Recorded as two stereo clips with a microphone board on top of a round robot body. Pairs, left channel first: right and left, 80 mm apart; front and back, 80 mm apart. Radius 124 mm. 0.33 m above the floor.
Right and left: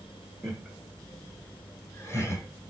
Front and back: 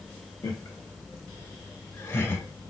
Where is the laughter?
Straight ahead, 1.4 m; by 2.5 s 60° right, 1.7 m.